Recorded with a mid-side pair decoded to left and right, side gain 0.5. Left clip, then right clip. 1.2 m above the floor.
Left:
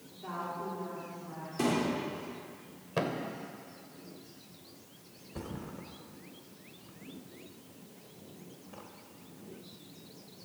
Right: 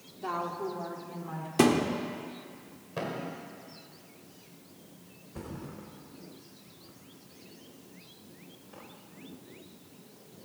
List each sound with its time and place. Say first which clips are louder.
0.2 s a woman speaking: right 5 dB; 55° right, 3 m; by 1.5 s 65° right, 4 m
1.6 s a thud: right 6 dB; 65° right, 1.7 m
3.0 s a thud: left 2 dB; 35° left, 2 m
5.3 s a thud: even; 10° left, 2.5 m